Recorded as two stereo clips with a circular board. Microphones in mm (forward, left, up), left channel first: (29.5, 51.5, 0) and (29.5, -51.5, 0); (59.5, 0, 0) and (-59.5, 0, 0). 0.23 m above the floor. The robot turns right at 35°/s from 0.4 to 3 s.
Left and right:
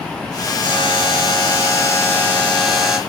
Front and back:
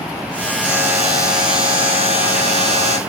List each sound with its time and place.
0.6 s a buzzer: 105° left, 3 m; by 3.0 s 175° right, 3 m